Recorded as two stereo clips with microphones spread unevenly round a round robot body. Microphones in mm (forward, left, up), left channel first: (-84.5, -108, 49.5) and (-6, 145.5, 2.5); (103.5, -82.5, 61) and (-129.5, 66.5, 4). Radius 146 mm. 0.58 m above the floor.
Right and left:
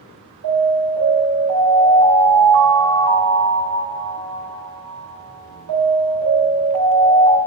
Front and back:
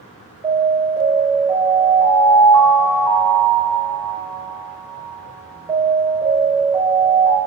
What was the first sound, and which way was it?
An alarm, 70° left.